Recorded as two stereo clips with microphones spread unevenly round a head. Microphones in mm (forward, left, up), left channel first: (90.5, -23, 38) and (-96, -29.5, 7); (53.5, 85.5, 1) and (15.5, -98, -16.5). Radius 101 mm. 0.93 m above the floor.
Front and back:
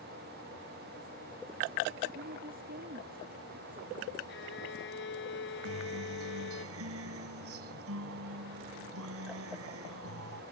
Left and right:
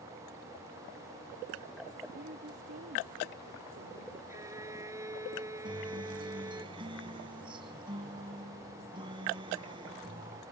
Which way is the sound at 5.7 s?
170° right.